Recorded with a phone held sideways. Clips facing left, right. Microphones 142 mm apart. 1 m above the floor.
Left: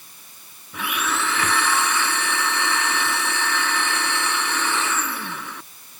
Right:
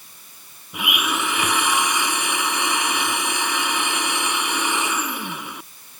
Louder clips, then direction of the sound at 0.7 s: Right 1 dB; 15° right (ahead or behind).